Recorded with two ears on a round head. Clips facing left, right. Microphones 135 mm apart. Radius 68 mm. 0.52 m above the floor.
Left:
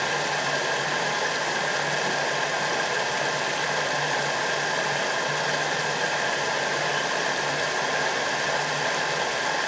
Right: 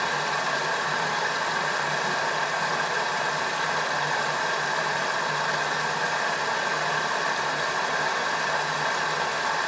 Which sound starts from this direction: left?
Running water, at 0.0 s.